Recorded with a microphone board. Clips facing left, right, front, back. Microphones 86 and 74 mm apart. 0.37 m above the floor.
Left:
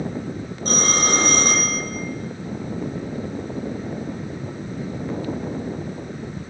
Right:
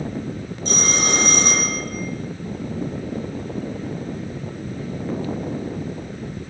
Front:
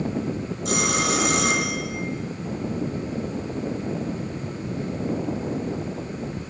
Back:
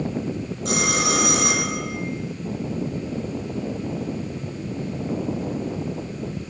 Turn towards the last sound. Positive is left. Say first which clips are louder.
# left 1 dB, back 1 dB
turn(degrees=135)